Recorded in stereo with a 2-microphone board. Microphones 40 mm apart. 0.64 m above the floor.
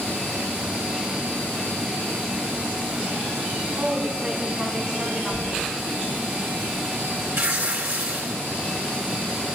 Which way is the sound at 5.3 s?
35° right (ahead or behind).